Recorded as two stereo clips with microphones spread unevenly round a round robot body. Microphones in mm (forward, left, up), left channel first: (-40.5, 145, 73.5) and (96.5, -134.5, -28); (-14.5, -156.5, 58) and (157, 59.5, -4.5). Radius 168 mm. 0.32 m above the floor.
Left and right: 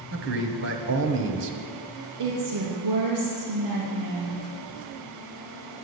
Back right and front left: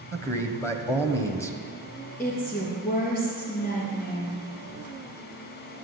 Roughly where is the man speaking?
Ahead right.